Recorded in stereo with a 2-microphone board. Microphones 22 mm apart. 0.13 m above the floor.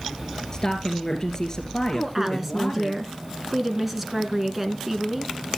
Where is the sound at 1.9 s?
15° right (ahead or behind), 1.2 m.